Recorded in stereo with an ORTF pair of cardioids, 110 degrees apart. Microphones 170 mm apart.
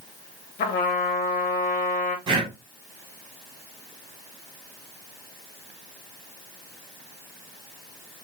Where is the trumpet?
60° left, 0.9 m.